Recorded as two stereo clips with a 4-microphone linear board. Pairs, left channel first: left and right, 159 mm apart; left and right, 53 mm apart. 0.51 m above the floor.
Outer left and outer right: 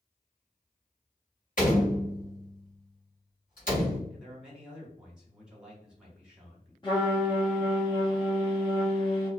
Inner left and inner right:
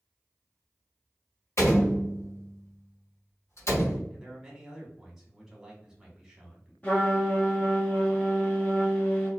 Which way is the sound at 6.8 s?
30° left (ahead or behind).